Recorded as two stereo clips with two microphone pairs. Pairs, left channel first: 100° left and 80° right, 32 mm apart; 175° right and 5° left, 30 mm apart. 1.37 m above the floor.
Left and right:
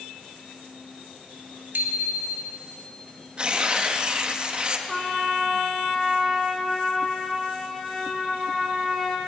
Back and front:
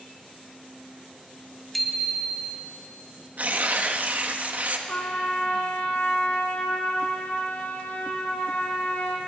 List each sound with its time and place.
1.7 s a bicycle bell: 85° right, 2 m
3.4 s tearing paper: 25° right, 1.5 m
4.9 s a trumpet: 175° right, 3.5 m